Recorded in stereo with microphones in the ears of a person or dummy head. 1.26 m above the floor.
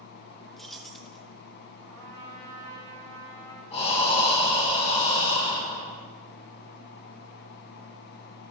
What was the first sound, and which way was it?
Keys jangling, centre (ahead or behind).